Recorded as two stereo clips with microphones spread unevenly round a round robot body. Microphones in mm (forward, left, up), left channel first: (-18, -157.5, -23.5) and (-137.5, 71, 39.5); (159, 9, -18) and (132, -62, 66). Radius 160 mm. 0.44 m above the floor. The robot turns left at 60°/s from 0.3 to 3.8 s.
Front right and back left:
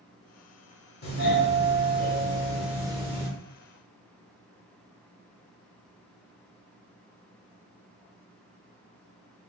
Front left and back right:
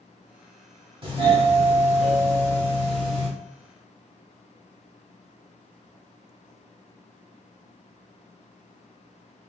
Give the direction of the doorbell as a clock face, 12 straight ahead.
1 o'clock.